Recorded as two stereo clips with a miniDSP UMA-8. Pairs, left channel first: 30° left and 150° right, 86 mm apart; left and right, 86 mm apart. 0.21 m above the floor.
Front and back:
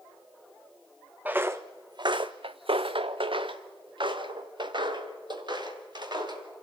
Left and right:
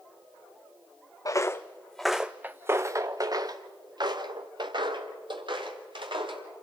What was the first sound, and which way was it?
Footsteps, 140° left.